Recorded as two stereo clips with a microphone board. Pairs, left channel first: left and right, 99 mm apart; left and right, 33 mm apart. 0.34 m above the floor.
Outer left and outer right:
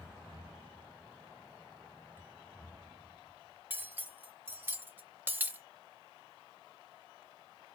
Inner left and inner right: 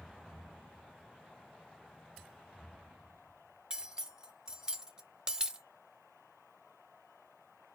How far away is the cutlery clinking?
About 0.6 m.